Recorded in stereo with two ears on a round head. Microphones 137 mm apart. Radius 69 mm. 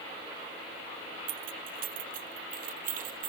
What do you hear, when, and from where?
1.3 s keys jangling: 60° right (ahead or behind); by 3.3 s 55° right (ahead or behind)